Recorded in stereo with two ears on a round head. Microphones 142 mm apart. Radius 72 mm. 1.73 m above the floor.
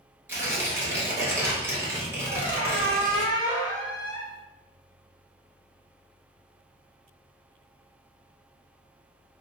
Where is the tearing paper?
15° right (ahead or behind), 0.8 m.